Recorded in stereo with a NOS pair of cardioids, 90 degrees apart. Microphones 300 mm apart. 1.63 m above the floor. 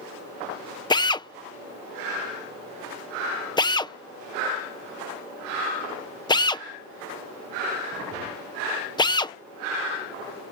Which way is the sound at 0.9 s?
15° left.